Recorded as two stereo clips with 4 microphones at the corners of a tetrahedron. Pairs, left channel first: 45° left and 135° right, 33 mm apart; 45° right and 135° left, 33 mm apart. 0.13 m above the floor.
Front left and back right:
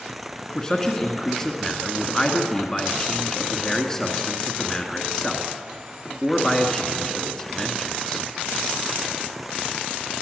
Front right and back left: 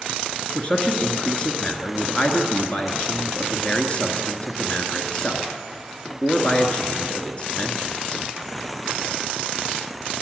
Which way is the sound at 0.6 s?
15° right.